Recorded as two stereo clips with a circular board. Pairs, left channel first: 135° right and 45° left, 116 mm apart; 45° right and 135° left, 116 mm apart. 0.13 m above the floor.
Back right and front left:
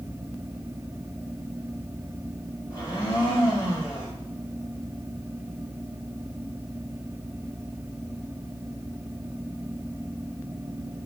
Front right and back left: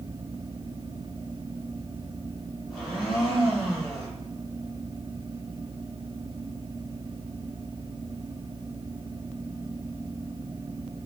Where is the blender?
125° right, 1.9 m.